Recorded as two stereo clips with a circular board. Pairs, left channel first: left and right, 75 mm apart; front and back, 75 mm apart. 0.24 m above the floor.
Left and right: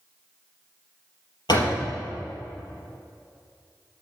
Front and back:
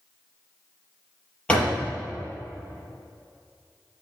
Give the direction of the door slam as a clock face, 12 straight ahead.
9 o'clock.